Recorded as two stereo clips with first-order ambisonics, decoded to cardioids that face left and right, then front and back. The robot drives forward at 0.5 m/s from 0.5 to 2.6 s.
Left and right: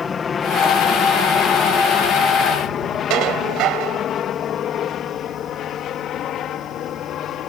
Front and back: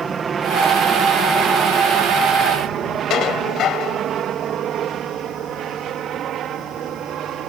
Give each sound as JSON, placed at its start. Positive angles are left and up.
{"t": 0.0, "sound": "an aircraft", "azimuth_deg": 135}
{"t": 3.1, "sound": "dishes clattering", "azimuth_deg": -50}